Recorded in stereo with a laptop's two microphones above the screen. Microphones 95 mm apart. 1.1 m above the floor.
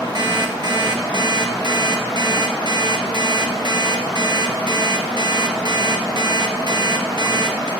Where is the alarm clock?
50° right (ahead or behind), 0.5 m.